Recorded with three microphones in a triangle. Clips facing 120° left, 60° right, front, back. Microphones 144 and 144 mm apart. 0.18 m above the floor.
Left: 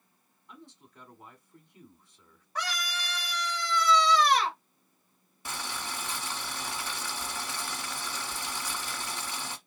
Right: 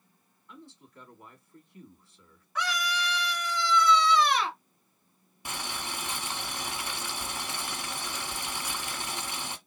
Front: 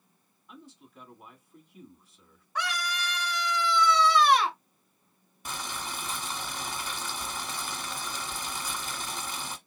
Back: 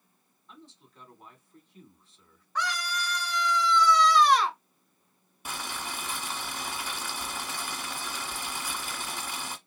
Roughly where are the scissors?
I don't hear scissors.